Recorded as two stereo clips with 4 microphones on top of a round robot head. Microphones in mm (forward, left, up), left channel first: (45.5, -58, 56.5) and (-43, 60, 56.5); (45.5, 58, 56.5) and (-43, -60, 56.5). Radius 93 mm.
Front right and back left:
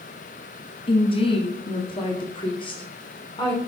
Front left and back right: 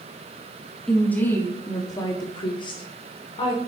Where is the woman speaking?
30° right, 1.3 m; by 3.6 s 5° left, 3 m.